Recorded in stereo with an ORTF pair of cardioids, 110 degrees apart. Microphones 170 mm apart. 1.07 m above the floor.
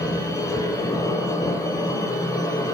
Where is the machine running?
20° left, 5 m.